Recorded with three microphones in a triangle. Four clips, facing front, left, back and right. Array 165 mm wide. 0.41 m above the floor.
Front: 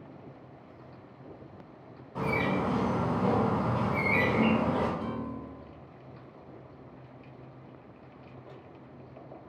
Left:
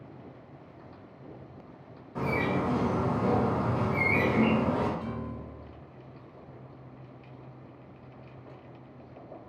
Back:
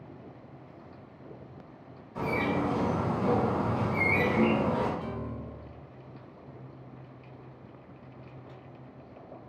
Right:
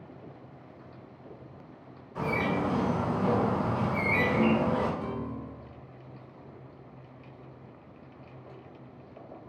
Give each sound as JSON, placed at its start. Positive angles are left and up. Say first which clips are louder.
{"t": 2.1, "sound": "a bird", "louder": "even, even", "azimuth_deg": 40, "distance_m": 2.0}
{"t": 5.0, "sound": "a piano", "louder": "right 2 dB, front 2 dB", "azimuth_deg": -40, "distance_m": 0.8}